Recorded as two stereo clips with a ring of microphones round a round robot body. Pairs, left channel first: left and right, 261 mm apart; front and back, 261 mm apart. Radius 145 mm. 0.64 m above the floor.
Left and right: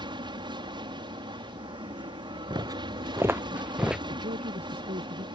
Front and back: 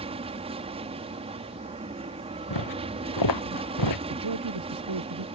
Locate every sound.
0.0 s an aircraft: 140° right
2.5 s footsteps: 15° right; by 4.0 s 5° right
4.1 s a woman speaking: 160° right